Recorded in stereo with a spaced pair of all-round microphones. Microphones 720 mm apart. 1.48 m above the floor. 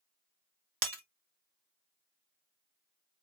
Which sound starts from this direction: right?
Breaking glass, at 0.8 s.